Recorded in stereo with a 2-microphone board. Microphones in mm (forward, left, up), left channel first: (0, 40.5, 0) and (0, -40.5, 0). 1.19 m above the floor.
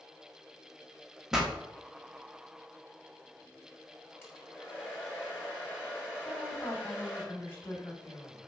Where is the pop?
5° right (ahead or behind), 1.4 m.